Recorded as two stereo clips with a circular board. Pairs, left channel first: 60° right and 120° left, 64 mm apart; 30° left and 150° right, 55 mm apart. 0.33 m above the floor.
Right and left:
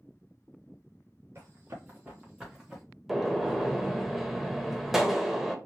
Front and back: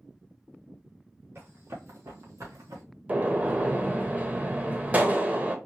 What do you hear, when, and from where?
1.4 s running footsteps: 170° left, 2.5 m; by 2.8 s 150° right, 2 m
3.1 s a gunshot: 155° right, 0.8 m